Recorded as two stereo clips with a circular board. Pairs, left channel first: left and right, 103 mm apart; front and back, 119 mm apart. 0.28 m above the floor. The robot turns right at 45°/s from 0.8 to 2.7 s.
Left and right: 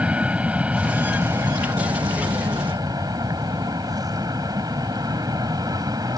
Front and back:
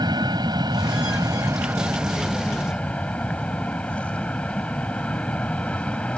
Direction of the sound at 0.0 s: 160° right.